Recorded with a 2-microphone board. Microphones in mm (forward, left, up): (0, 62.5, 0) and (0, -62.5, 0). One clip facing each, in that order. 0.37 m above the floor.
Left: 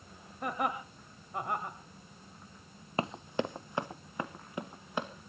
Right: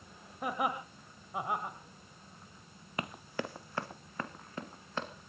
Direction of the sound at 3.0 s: 30° left (ahead or behind).